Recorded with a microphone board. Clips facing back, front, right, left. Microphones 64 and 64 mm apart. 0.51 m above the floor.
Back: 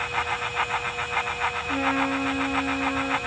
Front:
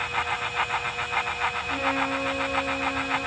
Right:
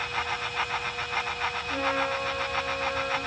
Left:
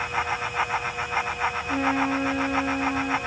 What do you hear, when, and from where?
1.7 s a trumpet: 110° left, 6.5 m